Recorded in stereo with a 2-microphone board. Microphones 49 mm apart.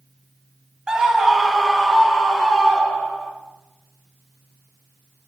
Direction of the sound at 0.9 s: 15° right (ahead or behind).